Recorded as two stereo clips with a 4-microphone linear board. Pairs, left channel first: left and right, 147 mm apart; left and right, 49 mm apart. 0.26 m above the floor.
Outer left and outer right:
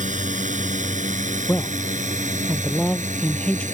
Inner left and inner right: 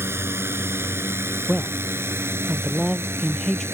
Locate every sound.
0.0 s a drone: 55° right (ahead or behind)
1.5 s a man speaking: 5° left (ahead or behind)